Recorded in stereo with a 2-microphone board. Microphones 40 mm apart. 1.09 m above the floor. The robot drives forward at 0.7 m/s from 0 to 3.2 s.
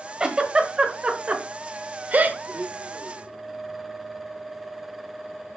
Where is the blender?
50° right (ahead or behind), 1.5 m; by 3.4 s 35° right (ahead or behind), 1.9 m.